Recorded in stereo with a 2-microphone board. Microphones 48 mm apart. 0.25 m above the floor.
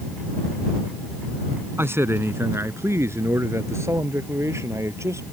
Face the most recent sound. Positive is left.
turn(degrees=-75)  # may be behind; listen again after turning